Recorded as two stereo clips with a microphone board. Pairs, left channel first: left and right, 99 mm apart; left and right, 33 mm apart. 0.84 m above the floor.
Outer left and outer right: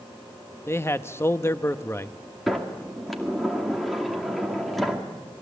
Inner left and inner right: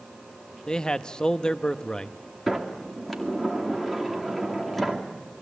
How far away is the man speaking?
About 0.9 m.